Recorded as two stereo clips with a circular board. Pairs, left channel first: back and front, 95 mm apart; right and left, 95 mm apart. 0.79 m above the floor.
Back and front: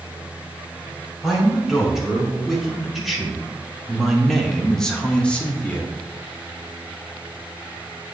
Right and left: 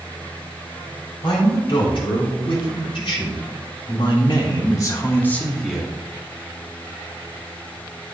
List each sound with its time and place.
1.2 s a man speaking: 85° right, 3.5 m; by 5.9 s 150° left, 0.9 m